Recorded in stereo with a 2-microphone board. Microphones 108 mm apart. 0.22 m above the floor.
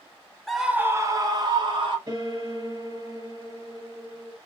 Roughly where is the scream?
Centre.